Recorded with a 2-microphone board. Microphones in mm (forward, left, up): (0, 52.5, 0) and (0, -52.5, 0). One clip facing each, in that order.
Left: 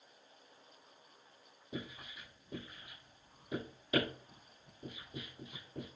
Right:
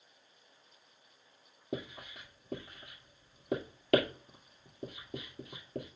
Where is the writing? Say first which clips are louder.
Right 5 dB; 75° right (ahead or behind), 2.5 m.